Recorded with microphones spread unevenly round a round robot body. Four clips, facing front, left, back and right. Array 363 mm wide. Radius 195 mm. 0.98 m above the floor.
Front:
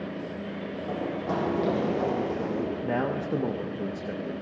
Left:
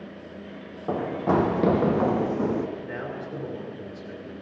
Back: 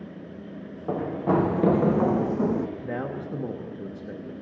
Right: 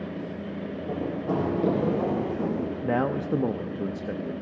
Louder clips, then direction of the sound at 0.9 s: Left 5 dB, back 6 dB; 110° left.